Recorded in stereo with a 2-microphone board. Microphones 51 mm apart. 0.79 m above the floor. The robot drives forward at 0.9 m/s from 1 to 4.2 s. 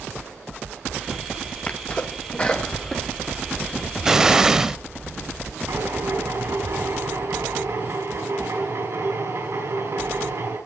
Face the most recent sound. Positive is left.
turn(degrees=-80)